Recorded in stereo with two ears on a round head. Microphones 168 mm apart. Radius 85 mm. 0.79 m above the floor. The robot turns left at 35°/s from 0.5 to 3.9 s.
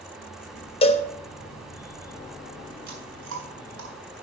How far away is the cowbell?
About 1.0 m.